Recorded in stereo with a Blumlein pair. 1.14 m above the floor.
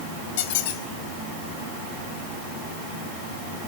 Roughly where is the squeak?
Ahead left.